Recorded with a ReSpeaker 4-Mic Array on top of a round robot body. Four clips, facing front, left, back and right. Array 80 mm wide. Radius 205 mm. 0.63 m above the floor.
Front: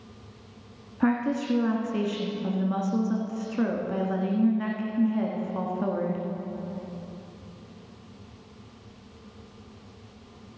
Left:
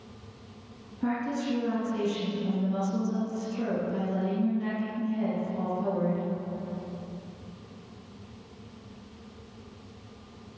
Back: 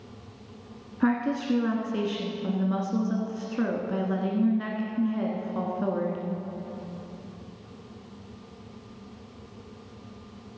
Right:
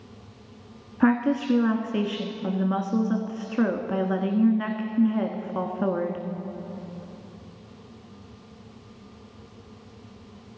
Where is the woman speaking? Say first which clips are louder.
Right 8 dB, even; 85° right, 1.7 m.